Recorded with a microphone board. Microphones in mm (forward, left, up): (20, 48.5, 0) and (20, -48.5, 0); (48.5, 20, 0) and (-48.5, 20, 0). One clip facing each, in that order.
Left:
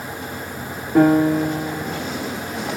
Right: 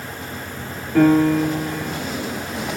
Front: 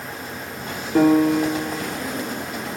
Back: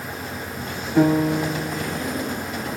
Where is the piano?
25° left, 4 m.